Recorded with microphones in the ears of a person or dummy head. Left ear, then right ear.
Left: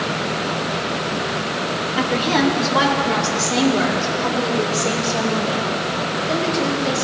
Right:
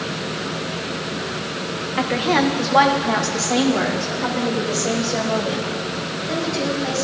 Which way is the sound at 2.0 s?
15° right (ahead or behind).